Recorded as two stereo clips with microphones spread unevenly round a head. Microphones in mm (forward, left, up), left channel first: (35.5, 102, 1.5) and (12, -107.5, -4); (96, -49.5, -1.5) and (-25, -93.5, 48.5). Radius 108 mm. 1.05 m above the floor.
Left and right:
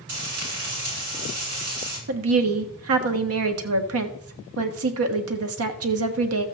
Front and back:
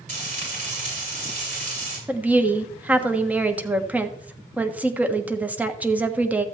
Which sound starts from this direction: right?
A woman speaking, at 2.1 s.